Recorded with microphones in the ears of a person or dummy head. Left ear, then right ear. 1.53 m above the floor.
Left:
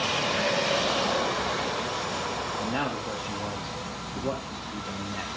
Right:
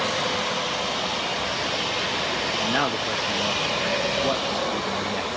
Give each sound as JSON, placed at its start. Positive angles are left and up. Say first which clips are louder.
{"t": 2.6, "sound": "a man speaking", "louder": "right 6 dB", "side_deg": -65, "distance_m": 0.8}